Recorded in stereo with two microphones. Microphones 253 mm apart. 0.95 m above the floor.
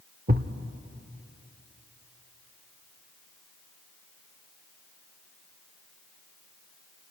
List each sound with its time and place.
0.3 s a thud: 35° right (ahead or behind), 0.7 m